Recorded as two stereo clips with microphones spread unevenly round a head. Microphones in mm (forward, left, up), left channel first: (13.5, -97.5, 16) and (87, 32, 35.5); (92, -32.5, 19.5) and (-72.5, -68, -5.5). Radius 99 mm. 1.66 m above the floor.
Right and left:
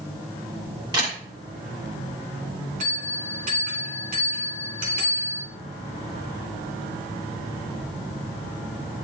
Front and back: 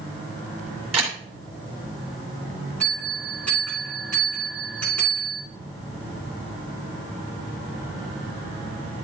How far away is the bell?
About 2.5 m.